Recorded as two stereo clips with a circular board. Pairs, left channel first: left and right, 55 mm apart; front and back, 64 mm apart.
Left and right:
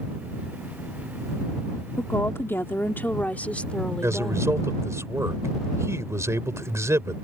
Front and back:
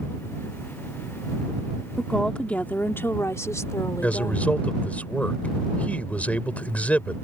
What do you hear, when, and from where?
2.0 s a woman speaking: 85° left; by 4.6 s 10° left
4.0 s a man speaking: 65° right